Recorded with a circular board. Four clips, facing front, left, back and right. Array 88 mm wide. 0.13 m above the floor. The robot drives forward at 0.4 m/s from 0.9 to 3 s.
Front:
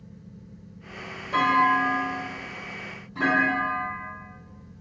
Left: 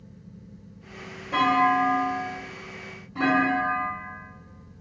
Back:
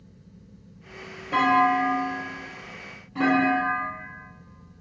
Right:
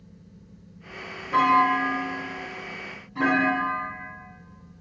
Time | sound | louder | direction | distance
1.3 | a clunk | right 1 dB, back 1 dB | 170° left | 1.8 m